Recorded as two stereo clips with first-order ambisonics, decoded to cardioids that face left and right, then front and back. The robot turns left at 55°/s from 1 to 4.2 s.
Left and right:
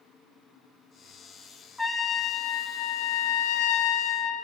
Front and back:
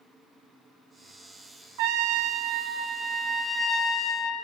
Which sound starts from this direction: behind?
A trumpet, at 1.8 s.